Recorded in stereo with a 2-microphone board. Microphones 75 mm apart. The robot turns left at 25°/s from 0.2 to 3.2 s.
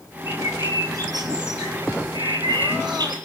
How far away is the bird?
About 1.7 m.